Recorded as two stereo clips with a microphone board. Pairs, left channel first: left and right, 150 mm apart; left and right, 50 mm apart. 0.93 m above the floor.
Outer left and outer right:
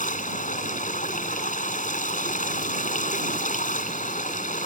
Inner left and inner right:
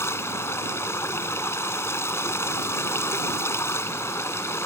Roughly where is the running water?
Left.